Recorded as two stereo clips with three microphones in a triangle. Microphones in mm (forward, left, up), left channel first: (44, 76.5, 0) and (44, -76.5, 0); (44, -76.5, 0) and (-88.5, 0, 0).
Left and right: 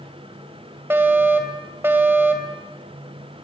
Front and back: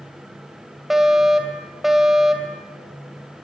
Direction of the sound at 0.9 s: 125° right.